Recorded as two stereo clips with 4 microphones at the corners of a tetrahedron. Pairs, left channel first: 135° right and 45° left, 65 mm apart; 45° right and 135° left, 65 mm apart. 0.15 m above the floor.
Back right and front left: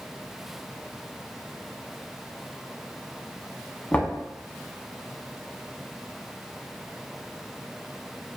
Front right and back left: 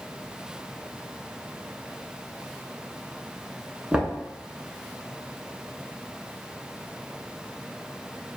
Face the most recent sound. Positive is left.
turn(degrees=-170)